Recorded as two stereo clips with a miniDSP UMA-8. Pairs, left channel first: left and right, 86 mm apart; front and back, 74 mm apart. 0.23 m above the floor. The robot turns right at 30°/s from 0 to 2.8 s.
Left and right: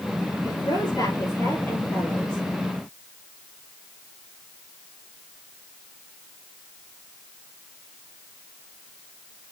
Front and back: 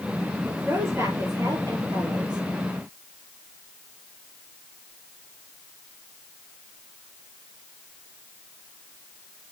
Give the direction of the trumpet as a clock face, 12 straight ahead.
I don't hear a trumpet.